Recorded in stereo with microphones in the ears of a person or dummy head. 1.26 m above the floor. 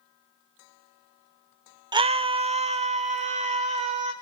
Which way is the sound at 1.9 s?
15° right (ahead or behind).